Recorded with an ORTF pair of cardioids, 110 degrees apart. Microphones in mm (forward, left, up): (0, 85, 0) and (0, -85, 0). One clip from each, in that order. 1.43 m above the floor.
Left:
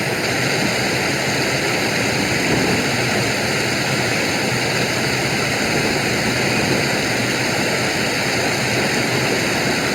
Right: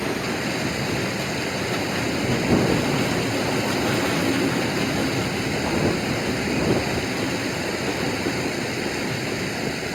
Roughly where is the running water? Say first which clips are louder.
Left 6 dB; ahead left.